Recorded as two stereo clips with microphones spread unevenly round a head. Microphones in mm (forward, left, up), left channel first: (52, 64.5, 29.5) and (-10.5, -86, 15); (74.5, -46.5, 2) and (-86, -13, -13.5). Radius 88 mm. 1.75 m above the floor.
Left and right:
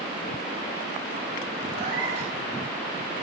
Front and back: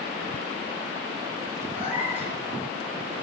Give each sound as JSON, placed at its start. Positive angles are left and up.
{"t": 1.7, "sound": "a cat meowing", "azimuth_deg": -110, "distance_m": 9.5}